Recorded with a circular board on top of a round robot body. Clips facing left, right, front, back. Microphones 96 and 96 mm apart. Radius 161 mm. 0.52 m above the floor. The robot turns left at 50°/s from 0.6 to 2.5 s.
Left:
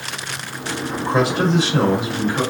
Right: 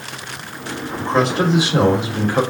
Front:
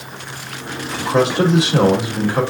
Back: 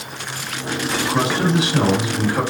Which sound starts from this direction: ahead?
A man speaking, at 1.0 s.